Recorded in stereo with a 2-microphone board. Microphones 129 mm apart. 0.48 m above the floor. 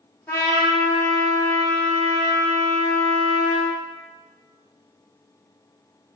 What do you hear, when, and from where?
0.3 s a trumpet: 20° left (ahead or behind), 0.8 m